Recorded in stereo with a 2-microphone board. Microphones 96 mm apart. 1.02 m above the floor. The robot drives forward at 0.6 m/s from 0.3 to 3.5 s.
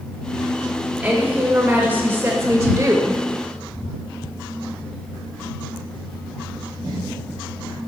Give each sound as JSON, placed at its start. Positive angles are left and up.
{"t": 1.0, "sound": "a woman speaking", "side_deg": -15, "distance_m": 1.9}